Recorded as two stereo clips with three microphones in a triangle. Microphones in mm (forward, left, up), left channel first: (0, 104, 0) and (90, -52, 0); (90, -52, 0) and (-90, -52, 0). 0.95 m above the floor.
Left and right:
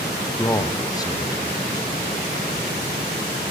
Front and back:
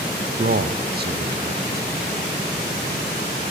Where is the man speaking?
175° right, 0.6 m.